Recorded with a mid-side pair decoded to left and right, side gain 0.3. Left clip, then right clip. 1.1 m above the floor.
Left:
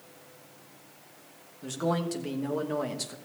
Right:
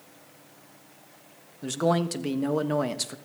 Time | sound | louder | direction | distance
1.6 | a man speaking | right 5 dB | 65° right | 1.3 m